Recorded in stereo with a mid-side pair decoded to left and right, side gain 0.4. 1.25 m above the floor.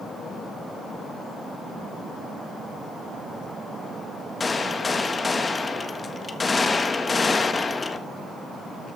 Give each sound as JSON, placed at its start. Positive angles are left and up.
{"t": 4.4, "sound": "a gunshot", "azimuth_deg": 35, "distance_m": 1.2}